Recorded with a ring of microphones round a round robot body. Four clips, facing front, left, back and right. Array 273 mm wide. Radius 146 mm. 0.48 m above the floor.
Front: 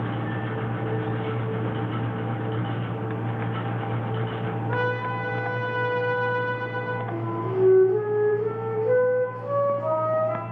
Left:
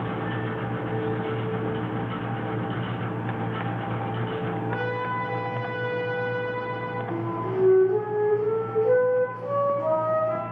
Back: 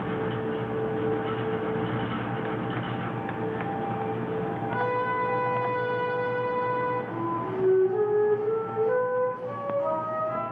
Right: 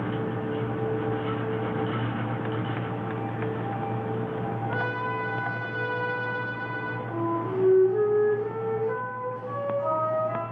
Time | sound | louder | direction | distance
4.7 | a trumpet | left 1 dB, even | 5° right | 8.5 m
7.1 | a flute | right 2 dB, front 1 dB | 45° left | 9 m